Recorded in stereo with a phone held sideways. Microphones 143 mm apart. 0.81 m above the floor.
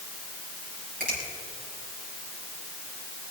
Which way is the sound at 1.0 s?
85° right.